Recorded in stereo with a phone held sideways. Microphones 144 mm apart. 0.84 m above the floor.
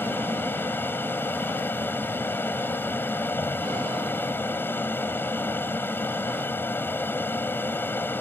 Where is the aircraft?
15° left (ahead or behind).